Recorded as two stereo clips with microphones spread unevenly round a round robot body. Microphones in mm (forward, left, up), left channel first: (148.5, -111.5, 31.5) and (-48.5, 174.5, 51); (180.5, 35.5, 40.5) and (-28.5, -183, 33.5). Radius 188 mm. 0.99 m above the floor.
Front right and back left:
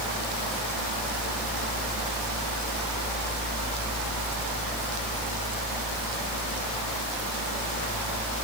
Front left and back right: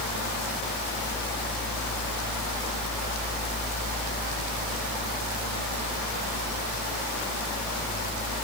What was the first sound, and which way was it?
Only background noise.